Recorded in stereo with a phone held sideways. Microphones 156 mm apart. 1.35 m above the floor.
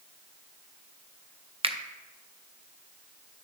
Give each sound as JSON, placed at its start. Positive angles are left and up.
{"t": 1.6, "sound": "a finger snap", "side_deg": -40, "distance_m": 0.5}